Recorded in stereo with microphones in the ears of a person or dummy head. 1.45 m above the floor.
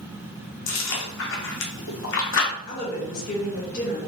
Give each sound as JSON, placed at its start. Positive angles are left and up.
{"t": 0.7, "sound": "chewing", "side_deg": 65, "distance_m": 0.7}
{"t": 2.6, "sound": "a woman speaking", "side_deg": 45, "distance_m": 1.3}